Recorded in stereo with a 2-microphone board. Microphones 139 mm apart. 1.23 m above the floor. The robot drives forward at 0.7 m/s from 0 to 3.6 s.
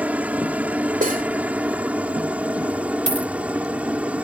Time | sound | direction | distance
0.0 | a helicopter | 10° right (ahead or behind) | ?
1.0 | cutlery clinking | 75° right (ahead or behind) | ?
3.1 | a dropped coin | 55° right (ahead or behind) | ?